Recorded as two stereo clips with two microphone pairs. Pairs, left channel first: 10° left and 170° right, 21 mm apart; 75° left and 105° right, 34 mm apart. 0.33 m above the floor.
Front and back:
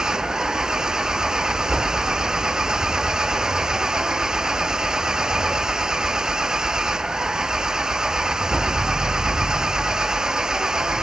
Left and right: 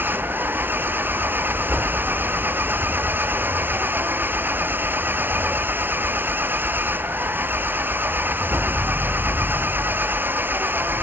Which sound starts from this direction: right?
An engine running, at 0.0 s.